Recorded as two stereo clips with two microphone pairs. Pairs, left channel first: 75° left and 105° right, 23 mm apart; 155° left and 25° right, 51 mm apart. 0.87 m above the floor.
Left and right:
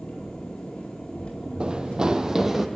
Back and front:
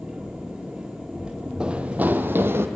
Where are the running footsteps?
90° right, 1.2 m; by 2.7 s 30° right, 1.5 m.